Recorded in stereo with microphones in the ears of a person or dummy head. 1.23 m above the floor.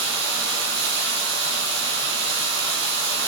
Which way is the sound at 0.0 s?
65° right (ahead or behind).